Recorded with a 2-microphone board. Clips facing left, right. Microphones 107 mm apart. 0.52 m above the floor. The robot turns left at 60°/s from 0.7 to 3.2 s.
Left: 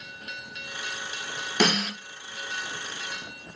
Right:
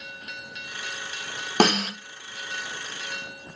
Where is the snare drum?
45° right (ahead or behind), 1.1 m; by 1.9 s 30° right (ahead or behind), 1.1 m.